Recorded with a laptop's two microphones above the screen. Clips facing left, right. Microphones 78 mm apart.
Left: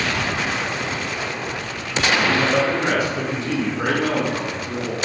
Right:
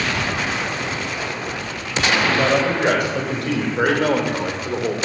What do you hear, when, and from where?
2.1 s a man speaking: 60° right (ahead or behind), 4.5 m; by 5.0 s 70° right (ahead or behind), 2.5 m